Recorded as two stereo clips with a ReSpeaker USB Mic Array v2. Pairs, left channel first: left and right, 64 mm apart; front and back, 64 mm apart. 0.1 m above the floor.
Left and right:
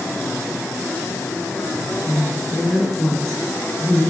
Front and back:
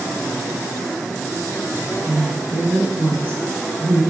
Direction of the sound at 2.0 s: 155° left.